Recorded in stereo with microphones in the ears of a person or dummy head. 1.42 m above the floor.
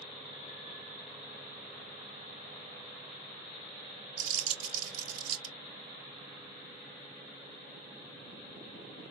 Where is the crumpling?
75° right (ahead or behind), 1.3 m.